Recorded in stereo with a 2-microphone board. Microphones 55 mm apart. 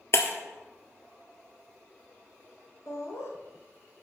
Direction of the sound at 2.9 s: 55° left (ahead or behind).